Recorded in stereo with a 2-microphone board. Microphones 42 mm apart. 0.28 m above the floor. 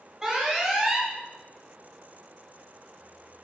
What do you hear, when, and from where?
0.2 s an alarm: 15° right (ahead or behind), 1.6 m